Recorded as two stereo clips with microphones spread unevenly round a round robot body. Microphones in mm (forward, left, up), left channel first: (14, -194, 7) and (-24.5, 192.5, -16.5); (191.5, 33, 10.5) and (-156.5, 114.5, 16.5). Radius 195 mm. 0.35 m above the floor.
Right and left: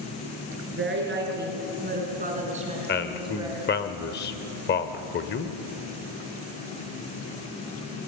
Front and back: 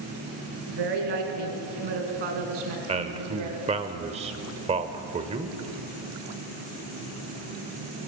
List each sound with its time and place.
0.7 s a woman speaking: 160° left, 5 m; by 3.6 s 175° left, 3.5 m
2.9 s a man speaking: 135° right, 1.0 m